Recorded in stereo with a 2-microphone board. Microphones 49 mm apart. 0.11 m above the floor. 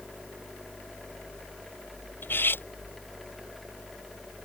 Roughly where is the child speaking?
No child speaking in this recording.